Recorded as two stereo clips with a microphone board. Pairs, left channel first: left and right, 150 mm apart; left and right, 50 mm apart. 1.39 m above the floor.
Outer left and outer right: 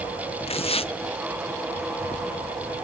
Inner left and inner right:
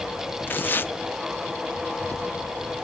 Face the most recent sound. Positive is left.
turn(degrees=40)  # may be behind; listen again after turning